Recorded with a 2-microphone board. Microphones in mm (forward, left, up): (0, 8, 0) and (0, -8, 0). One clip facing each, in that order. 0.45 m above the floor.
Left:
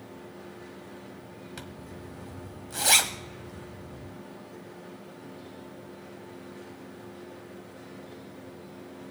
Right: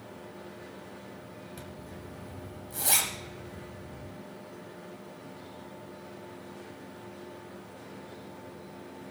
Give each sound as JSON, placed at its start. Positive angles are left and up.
{"t": 1.6, "sound": "a zipper", "side_deg": 35, "distance_m": 1.2}